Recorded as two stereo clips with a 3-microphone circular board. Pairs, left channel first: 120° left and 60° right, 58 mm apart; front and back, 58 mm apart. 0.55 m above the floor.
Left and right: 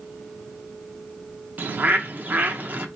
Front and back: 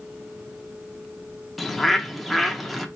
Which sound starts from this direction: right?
A bird, at 1.6 s.